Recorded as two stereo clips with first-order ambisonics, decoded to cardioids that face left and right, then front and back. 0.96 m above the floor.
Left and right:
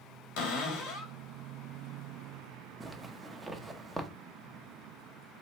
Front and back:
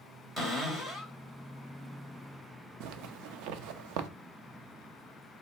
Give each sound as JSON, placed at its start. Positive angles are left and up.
{"t": 0.4, "sound": "a cupboard door", "azimuth_deg": 100, "distance_m": 1.8}
{"t": 2.8, "sound": "a zipper", "azimuth_deg": 180, "distance_m": 0.5}